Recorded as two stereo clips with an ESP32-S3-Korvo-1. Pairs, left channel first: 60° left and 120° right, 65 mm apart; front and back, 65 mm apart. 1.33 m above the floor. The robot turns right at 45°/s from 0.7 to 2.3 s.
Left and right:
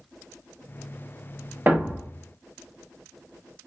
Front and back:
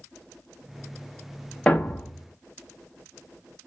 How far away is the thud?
About 0.9 m.